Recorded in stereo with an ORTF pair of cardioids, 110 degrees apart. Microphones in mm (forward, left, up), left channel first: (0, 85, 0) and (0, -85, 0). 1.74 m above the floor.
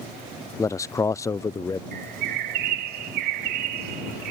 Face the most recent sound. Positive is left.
turn(degrees=-70)